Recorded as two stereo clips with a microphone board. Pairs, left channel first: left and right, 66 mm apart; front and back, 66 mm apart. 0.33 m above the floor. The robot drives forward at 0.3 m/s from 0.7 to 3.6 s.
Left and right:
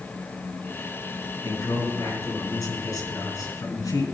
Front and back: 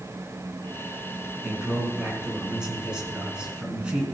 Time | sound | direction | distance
1.4 | a man speaking | 100° left | 4 m